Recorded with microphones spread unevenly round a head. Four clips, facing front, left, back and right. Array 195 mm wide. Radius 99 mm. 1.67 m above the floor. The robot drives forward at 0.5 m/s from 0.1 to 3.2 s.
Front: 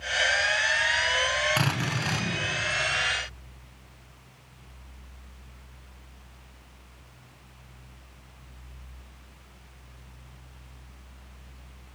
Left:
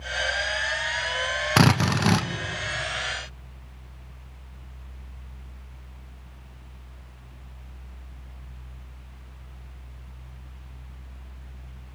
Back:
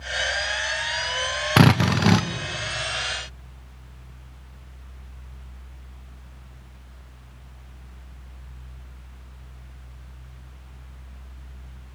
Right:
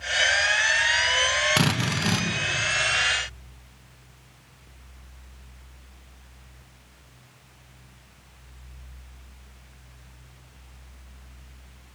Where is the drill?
160° left, 1.4 m; by 2.3 s 165° left, 1.7 m.